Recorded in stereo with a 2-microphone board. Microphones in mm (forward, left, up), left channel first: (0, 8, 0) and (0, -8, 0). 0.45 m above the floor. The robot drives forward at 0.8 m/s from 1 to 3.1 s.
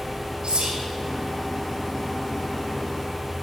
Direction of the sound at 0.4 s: 65° right (ahead or behind).